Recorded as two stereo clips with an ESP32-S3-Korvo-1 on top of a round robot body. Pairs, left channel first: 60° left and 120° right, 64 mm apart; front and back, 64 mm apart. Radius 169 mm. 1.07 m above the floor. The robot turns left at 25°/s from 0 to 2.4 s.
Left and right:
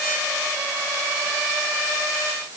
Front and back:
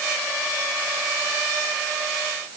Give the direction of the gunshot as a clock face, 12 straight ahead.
I don't hear a gunshot.